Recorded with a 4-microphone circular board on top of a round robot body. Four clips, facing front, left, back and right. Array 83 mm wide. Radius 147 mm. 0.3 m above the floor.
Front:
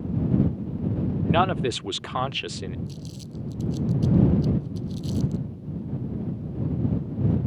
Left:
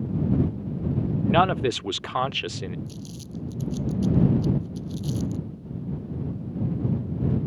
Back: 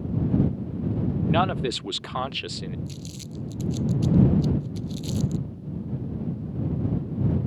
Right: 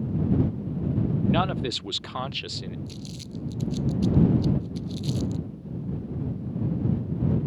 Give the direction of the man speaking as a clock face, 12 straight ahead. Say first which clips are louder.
Left 7 dB, front 2 dB; 10 o'clock.